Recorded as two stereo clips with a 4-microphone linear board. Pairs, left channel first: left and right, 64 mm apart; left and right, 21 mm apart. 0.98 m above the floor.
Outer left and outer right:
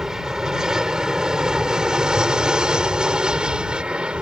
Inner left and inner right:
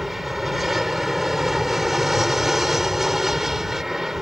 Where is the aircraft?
10° right (ahead or behind); by 4.2 s 15° right (ahead or behind).